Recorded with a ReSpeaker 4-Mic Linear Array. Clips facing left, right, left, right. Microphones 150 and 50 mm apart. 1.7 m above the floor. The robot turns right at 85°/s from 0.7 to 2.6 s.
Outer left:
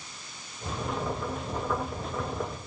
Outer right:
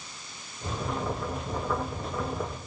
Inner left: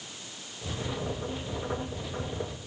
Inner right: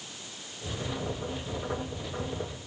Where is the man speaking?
I don't hear a man speaking.